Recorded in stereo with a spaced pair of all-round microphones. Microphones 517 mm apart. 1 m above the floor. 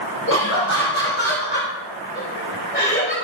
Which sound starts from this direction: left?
Laughter, at 0.3 s.